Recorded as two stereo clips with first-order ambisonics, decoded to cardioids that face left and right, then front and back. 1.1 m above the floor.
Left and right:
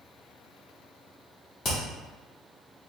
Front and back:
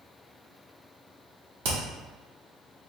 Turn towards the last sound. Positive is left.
turn(degrees=160)